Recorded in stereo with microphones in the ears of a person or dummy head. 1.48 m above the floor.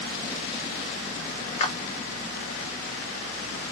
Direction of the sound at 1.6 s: 40° left (ahead or behind).